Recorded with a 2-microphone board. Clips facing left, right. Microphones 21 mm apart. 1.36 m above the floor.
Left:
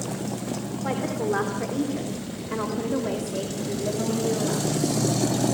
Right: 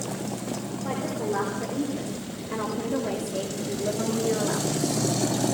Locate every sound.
0.8 s a woman speaking: 35° left (ahead or behind), 4 m; by 4.8 s 35° right (ahead or behind), 2.5 m